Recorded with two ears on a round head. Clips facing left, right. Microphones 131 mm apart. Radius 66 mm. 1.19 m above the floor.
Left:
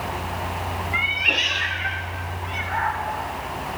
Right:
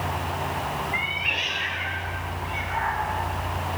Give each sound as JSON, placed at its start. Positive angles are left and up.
{"t": 0.9, "sound": "a cat meowing", "side_deg": 50, "distance_m": 0.8}